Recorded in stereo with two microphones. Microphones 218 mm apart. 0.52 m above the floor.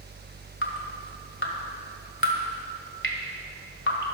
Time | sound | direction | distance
0.6 | dripping | 60° left (ahead or behind) | 1.9 m